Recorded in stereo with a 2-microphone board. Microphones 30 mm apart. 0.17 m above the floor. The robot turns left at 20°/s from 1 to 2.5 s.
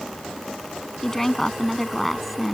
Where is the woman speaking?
15° left (ahead or behind); by 2.5 s centre (ahead or behind).